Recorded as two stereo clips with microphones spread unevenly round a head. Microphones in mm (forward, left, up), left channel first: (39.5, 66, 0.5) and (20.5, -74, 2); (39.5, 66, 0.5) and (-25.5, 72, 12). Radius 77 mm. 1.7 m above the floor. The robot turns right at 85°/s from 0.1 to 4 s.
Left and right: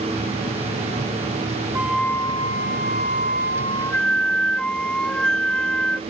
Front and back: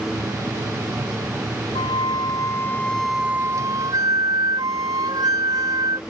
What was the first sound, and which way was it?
A flute, 25° right.